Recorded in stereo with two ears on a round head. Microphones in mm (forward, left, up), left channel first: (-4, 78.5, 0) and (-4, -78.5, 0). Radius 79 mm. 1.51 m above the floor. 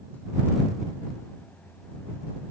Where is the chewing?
No chewing in this recording.